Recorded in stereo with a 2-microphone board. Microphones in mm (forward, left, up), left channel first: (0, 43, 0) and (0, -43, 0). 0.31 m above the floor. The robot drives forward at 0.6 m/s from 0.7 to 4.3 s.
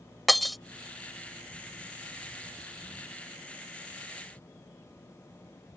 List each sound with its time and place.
0.3 s breaking glass: centre (ahead or behind)